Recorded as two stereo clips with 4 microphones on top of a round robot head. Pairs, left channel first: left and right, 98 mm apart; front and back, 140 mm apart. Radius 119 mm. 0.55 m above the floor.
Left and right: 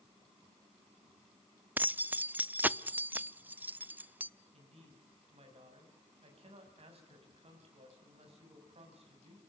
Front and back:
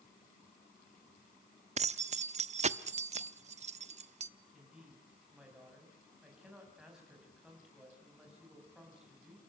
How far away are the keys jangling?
About 0.7 m.